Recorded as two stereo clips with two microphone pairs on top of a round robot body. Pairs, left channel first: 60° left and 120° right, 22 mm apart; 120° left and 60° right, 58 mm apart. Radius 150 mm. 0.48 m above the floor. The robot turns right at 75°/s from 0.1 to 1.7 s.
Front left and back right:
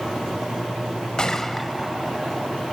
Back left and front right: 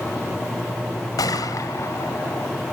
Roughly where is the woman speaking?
I don't hear a woman speaking.